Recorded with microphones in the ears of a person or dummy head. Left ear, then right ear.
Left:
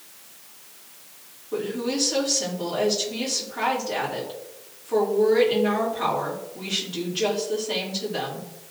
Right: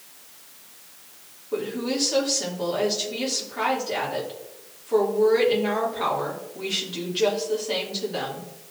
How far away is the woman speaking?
About 2.5 m.